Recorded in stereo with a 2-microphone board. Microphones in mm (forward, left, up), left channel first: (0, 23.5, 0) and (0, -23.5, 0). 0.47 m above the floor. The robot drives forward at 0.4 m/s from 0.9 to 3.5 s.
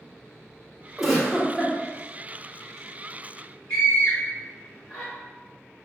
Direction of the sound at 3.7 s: 15° left (ahead or behind).